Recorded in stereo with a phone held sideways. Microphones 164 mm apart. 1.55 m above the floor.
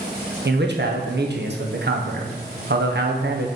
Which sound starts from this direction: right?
A man speaking, at 0.5 s.